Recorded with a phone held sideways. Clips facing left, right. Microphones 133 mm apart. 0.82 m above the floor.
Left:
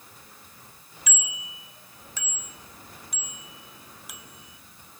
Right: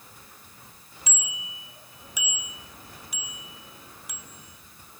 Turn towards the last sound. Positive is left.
turn(degrees=5)  # may be behind; listen again after turning